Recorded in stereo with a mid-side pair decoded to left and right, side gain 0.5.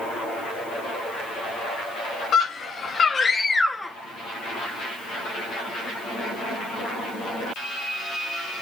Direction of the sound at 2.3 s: 55° left.